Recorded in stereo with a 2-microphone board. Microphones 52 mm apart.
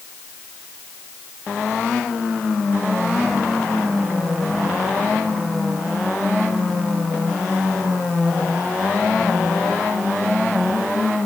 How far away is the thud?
No thud in this recording.